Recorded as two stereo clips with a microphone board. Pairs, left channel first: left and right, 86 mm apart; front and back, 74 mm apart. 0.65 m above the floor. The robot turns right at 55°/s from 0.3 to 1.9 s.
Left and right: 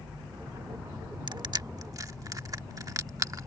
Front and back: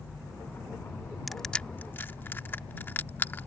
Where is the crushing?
90° right; by 3.5 s 55° right.